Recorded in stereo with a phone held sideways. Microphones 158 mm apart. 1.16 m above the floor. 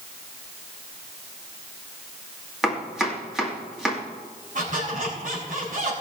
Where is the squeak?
55° right (ahead or behind), 5 m.